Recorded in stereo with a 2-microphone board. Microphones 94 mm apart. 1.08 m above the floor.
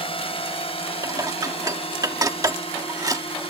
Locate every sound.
0.0 s a drone: 75° left (ahead or behind)
1.0 s dishes clattering: 40° right (ahead or behind)